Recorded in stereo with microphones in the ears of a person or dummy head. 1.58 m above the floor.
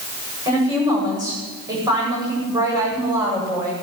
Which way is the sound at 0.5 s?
20° right (ahead or behind).